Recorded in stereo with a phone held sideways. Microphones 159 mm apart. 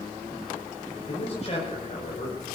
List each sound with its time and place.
1.1 s a man speaking: 45° left (ahead or behind), 6.5 m